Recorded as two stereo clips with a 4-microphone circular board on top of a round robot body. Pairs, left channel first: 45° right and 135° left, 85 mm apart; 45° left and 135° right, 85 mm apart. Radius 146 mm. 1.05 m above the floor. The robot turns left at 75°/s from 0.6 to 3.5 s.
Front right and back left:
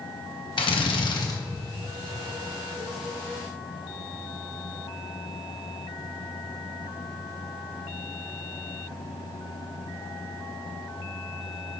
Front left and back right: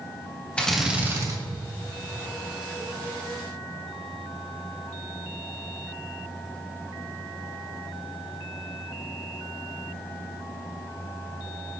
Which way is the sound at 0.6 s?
35° right.